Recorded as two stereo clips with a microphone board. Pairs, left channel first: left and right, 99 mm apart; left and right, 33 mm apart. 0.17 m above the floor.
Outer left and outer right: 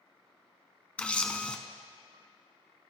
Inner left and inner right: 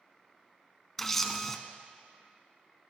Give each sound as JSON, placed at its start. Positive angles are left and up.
{"t": 1.0, "sound": "a camera shutter", "side_deg": 10, "distance_m": 0.7}